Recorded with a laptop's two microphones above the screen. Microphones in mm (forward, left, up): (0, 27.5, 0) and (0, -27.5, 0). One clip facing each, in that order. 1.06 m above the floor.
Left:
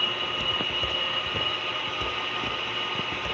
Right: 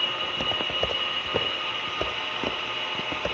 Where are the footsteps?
65° right (ahead or behind), 2.5 m; by 3.3 s 60° right (ahead or behind), 3 m.